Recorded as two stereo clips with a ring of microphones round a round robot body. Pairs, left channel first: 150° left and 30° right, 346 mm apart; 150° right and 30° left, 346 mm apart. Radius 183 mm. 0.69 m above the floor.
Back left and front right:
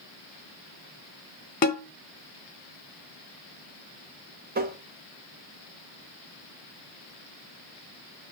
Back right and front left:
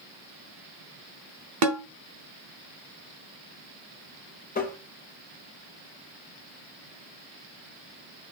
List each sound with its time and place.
1.6 s a snare drum: 80° left, 0.7 m
4.5 s tapping: 90° right, 0.8 m